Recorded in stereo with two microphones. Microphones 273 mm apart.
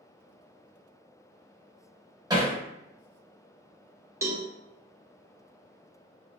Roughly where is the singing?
No singing in this recording.